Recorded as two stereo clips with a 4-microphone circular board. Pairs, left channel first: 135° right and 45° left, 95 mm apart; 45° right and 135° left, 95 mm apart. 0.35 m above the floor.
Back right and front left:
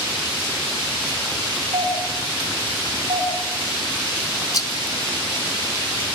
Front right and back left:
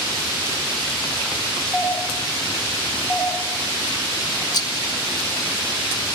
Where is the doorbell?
55° left, 4 m.